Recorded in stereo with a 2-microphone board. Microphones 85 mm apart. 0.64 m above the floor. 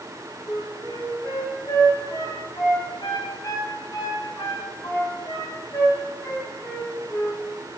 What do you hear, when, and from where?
0.5 s a flute: 50° left (ahead or behind), 3.5 m